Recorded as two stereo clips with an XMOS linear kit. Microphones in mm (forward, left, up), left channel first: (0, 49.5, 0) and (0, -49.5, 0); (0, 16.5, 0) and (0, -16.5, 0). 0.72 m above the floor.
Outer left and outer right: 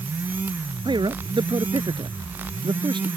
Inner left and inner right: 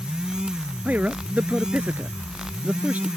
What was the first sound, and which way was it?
A man speaking, 50° right (ahead or behind).